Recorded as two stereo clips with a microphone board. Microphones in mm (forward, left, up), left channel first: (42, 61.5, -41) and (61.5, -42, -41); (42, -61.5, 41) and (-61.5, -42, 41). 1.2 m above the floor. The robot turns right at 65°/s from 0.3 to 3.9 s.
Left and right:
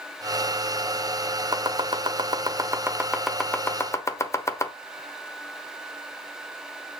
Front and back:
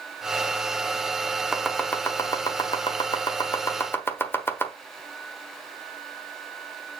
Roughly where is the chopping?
Right.